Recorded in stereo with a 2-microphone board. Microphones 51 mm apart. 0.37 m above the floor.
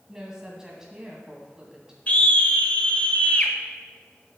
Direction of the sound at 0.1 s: 10° right (ahead or behind).